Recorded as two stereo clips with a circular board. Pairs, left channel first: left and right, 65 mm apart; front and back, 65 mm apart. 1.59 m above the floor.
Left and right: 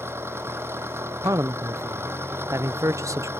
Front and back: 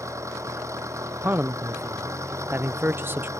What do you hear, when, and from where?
0.0 s an engine running: 140° right
1.2 s a man speaking: 125° right